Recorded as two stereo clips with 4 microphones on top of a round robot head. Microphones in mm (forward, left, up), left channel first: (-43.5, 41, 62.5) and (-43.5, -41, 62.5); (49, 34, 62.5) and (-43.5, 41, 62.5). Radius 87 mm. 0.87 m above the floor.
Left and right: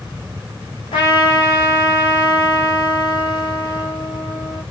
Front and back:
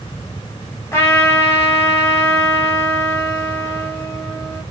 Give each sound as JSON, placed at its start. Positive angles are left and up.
{"t": 0.9, "sound": "a trumpet", "azimuth_deg": 55, "distance_m": 2.5}